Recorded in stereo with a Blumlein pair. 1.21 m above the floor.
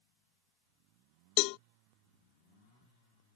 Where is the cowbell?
45° left.